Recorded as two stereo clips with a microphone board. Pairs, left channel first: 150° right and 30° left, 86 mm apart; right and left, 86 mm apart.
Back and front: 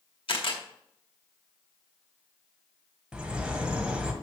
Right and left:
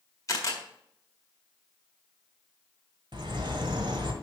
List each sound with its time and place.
0.3 s a camera shutter: 140° right, 1.8 m
3.1 s a bird: 110° left, 1.5 m